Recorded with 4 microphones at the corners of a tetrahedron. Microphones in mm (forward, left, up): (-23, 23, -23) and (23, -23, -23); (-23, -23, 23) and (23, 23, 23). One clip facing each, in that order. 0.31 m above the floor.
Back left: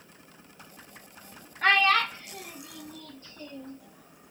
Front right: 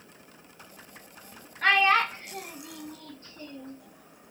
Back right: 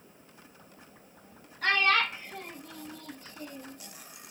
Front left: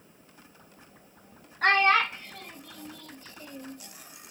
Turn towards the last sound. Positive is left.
turn(degrees=-90)